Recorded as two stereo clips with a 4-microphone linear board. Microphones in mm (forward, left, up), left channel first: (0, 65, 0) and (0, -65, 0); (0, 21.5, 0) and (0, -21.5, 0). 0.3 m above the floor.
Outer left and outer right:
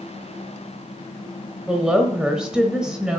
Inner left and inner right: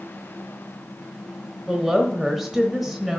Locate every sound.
1.7 s a woman speaking: 5° right (ahead or behind), 1.0 m